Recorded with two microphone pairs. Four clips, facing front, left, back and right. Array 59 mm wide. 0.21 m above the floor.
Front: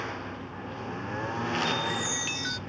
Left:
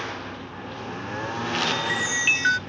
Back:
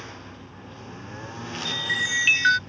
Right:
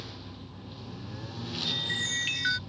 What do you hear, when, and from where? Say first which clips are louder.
0.0 s a lawn mower: left 12 dB, front 5 dB; 65° left
1.6 s a chime: left 9 dB, back 3 dB; 150° left